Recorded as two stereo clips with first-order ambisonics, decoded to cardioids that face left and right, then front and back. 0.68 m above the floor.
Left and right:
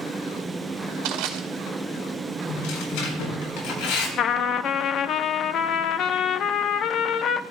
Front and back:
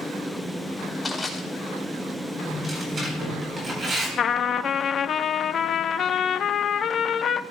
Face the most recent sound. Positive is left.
turn(degrees=55)